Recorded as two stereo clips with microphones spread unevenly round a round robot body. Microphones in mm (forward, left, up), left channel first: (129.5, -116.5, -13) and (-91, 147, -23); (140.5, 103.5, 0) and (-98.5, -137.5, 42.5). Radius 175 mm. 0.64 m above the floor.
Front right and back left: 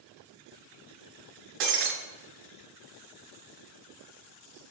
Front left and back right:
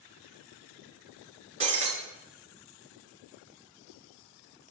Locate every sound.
1.6 s breaking glass: 155° left, 2.5 m